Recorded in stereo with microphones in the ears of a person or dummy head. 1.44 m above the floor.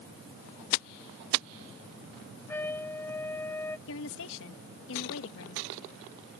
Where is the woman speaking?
70° left (ahead or behind).